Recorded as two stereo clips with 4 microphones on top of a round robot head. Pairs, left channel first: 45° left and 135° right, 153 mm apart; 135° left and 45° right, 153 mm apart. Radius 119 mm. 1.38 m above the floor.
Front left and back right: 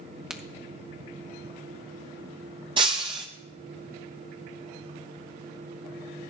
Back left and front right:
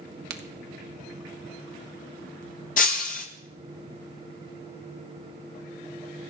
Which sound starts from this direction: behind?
Breaking glass, at 2.8 s.